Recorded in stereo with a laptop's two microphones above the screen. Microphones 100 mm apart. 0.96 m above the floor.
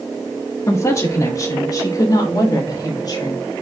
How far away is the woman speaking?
About 1.7 m.